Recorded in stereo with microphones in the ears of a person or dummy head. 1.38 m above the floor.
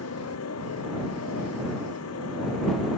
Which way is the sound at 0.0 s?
85° left.